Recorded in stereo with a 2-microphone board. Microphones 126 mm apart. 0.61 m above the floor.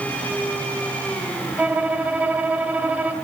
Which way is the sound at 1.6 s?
10° right (ahead or behind).